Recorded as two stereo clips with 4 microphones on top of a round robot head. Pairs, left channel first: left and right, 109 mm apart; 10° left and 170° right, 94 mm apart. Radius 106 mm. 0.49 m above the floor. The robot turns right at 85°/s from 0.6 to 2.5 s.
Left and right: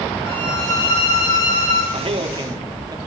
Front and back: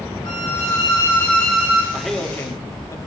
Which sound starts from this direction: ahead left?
A violin, at 0.2 s.